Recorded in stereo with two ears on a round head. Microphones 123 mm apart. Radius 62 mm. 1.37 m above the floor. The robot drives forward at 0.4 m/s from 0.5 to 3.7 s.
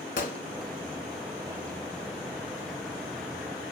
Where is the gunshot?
60° left (ahead or behind), 1.4 m.